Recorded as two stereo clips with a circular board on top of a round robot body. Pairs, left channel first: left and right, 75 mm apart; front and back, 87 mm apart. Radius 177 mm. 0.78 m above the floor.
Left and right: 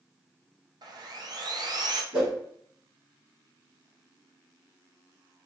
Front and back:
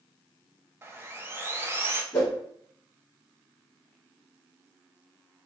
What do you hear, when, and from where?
0.8 s sawing: 120° right, 0.6 m
2.1 s a whoosh: 60° right, 1.0 m